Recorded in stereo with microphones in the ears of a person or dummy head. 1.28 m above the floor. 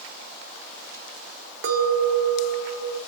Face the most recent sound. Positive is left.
turn(degrees=-65)  # may be behind; listen again after turning